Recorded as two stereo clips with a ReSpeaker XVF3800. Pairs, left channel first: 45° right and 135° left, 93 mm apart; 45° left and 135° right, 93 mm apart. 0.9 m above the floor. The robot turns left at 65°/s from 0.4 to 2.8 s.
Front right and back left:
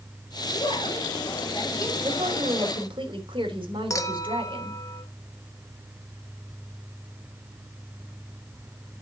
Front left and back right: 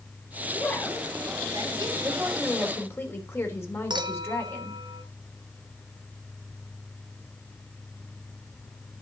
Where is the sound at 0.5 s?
15° right, 2.5 m; by 2.1 s 115° right, 2.5 m.